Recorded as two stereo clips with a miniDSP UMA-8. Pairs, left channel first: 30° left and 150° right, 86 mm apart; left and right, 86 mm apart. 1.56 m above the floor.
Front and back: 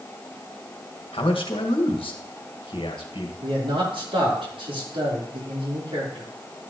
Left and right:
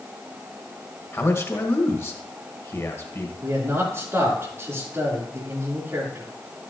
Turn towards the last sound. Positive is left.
turn(degrees=-150)